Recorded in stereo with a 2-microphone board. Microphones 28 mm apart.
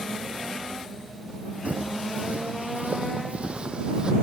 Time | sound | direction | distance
1.6 | footsteps | 70° right (ahead or behind) | ?